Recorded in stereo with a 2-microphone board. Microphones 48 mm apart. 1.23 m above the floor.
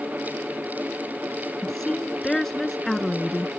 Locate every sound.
1.6 s a woman speaking: 10° left (ahead or behind)